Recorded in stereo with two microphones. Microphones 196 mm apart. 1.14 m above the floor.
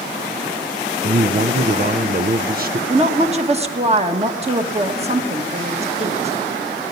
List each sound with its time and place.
1.0 s a man speaking: 50° right (ahead or behind), 0.6 m
2.9 s a woman speaking: 35° right (ahead or behind), 1.5 m